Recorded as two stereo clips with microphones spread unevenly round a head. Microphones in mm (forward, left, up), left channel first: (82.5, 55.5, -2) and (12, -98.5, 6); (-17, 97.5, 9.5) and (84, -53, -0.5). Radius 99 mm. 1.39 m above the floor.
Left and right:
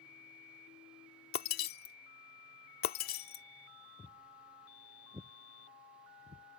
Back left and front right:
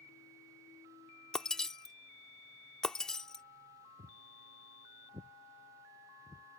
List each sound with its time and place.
1.3 s breaking glass: 40° left
4.0 s footsteps: 10° right; by 6.5 s 145° right